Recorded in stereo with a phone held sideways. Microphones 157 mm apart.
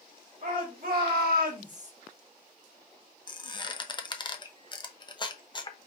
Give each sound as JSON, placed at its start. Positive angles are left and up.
{"t": 0.4, "sound": "a shout", "side_deg": -60, "distance_m": 1.7}
{"t": 3.3, "sound": "a squeak", "side_deg": 30, "distance_m": 0.6}